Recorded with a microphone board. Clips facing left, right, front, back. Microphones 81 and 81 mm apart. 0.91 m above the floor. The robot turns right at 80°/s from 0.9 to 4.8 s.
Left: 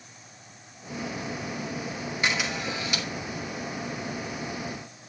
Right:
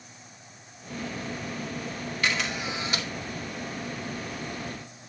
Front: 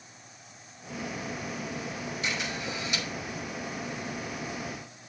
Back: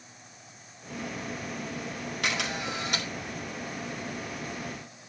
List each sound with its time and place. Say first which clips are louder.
2.2 s a camera shutter: even, back 4 dB; 160° left, 1.9 m; by 3.1 s 130° right, 1.9 m